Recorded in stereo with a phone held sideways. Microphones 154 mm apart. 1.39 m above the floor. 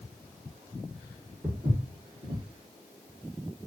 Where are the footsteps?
20° right (ahead or behind), 1.4 m.